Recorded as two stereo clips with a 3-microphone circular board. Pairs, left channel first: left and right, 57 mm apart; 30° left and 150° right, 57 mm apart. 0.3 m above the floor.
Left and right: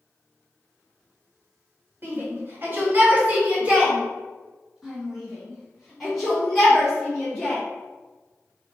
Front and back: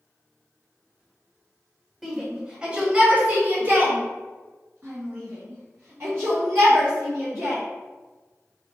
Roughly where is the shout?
Ahead right.